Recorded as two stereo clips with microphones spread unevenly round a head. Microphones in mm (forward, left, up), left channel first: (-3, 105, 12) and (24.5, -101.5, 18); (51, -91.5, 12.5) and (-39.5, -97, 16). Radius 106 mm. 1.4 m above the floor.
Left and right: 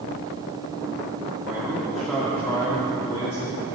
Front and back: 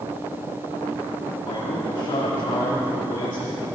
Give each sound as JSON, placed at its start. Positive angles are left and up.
{"t": 1.4, "sound": "a man speaking", "azimuth_deg": -10, "distance_m": 2.5}